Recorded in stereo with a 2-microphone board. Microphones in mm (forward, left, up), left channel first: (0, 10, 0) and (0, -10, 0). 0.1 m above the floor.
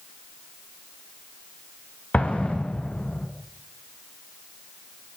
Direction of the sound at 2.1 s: 70° left (ahead or behind).